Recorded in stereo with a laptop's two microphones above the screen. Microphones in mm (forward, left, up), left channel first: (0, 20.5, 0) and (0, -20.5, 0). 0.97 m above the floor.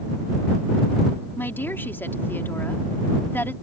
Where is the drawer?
I don't hear a drawer.